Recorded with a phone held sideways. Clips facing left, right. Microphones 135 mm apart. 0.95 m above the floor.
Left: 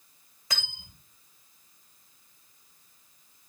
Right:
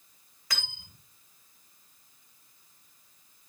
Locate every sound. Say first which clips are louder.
0.5 s cutlery clinking: left 1 dB; 25° left (ahead or behind), 1.9 m